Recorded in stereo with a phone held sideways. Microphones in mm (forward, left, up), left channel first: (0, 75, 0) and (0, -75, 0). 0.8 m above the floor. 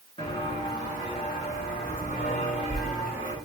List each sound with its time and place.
0.2 s footsteps: 35° left (ahead or behind), 4.5 m; by 3.4 s 60° left (ahead or behind), 5 m